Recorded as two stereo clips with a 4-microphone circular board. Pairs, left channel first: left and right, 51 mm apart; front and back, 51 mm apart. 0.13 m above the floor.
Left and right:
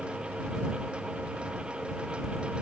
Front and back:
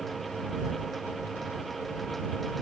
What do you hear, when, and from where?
Only background noise.